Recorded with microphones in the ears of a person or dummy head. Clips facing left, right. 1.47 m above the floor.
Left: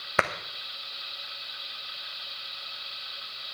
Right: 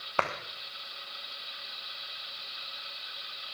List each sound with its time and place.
0.2 s a clap: 35° left (ahead or behind), 1.4 m